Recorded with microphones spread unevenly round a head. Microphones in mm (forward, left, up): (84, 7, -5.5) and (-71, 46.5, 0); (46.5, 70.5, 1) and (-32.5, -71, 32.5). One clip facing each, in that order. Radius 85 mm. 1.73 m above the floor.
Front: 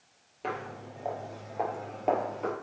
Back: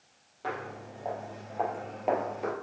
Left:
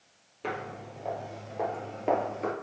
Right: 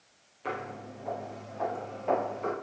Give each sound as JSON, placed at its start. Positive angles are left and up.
{"t": 0.4, "sound": "footsteps", "azimuth_deg": 50, "distance_m": 3.5}